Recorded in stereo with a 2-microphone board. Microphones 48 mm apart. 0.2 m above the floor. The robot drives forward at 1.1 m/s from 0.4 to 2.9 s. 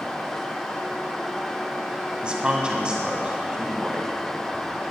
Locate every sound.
2.2 s a man speaking: 20° right (ahead or behind), 1.6 m